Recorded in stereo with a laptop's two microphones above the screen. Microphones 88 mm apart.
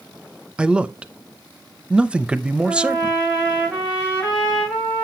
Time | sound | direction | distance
0.6 | a man speaking | 10° right (ahead or behind) | 0.6 m
2.6 | a trumpet | 5° left (ahead or behind) | 6 m